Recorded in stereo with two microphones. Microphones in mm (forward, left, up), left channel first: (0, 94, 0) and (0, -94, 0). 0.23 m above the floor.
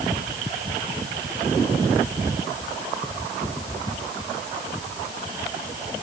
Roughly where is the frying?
I don't hear frying.